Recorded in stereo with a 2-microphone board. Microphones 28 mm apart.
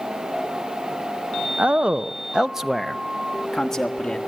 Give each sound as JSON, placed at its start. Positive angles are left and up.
{"t": 1.6, "sound": "a man speaking", "side_deg": -55, "distance_m": 0.7}